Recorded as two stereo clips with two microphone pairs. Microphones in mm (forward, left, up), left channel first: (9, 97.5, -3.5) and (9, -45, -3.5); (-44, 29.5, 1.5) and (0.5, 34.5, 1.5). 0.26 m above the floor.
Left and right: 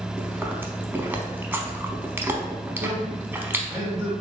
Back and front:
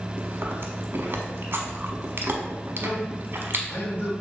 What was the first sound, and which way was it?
Chewing, 15° right.